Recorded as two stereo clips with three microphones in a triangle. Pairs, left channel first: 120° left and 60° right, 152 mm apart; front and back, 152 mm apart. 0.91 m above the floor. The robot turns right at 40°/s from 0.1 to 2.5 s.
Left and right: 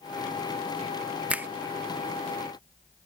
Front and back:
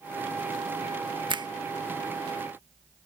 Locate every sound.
1.3 s a finger snap: 140° right; by 1.5 s 130° right